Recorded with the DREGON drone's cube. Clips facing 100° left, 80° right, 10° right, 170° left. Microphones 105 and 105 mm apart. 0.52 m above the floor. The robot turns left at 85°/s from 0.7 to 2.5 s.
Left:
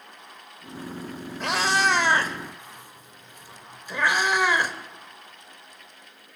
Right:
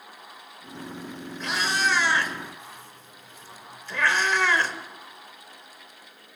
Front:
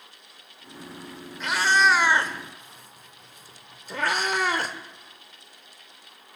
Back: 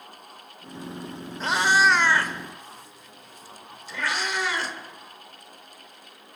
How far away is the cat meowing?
About 1.0 m.